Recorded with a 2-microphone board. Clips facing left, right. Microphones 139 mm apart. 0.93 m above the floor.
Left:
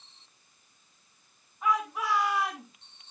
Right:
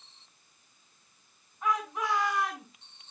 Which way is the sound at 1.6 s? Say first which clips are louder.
Left 2 dB; 5° left (ahead or behind).